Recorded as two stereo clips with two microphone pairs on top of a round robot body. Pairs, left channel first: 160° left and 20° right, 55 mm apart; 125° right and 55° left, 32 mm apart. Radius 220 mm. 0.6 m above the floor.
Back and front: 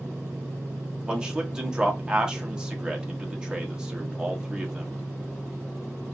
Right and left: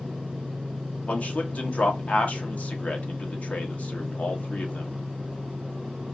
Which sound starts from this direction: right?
A man speaking, at 1.1 s.